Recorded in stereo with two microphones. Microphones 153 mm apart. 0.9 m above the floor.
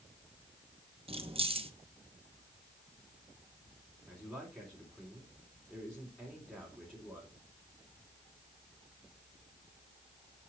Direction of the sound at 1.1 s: 35° right (ahead or behind).